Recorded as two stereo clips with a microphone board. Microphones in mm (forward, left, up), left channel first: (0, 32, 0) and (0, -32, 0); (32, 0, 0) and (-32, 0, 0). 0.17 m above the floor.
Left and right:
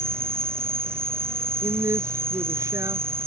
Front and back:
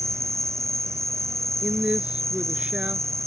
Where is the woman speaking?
110° right.